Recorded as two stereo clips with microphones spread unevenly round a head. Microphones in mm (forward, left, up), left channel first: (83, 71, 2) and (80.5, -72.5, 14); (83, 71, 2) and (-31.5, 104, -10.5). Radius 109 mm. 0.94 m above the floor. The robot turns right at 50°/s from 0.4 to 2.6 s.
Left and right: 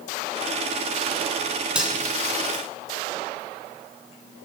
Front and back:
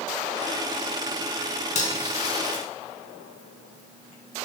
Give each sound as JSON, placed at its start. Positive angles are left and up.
{"t": 1.8, "sound": "cutlery clinking", "azimuth_deg": -10, "distance_m": 6.0}